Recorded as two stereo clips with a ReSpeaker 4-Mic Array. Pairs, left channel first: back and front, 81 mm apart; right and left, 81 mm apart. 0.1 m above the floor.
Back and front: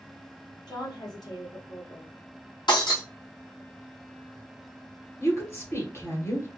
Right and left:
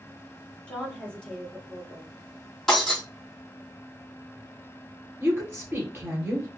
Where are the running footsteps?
I don't hear running footsteps.